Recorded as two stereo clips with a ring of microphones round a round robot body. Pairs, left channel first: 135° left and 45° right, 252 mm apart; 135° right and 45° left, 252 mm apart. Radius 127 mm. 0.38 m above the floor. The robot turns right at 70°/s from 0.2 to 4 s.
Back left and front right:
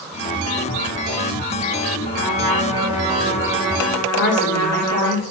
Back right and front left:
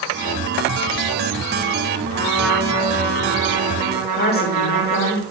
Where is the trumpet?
75° right, 3.5 m; by 5.1 s 55° left, 3.5 m.